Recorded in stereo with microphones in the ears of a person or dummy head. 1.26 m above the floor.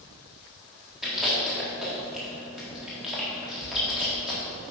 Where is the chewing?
Centre (ahead or behind), 1.9 m.